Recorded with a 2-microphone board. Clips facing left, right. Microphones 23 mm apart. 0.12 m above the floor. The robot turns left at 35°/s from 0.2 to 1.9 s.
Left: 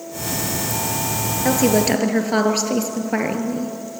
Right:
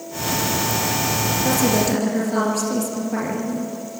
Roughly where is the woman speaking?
Left.